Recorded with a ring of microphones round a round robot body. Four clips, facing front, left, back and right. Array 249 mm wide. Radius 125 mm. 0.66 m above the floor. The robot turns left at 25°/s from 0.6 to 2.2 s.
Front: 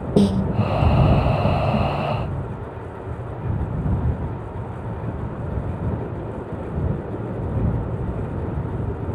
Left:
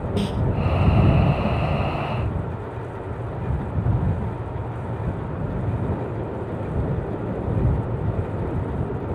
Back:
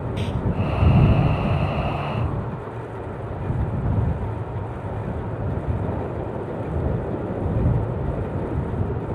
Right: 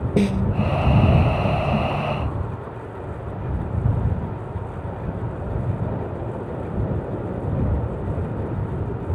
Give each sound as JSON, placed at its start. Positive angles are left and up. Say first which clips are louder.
{"t": 0.2, "sound": "a snare drum", "louder": "right 6 dB, front 12 dB", "azimuth_deg": -25}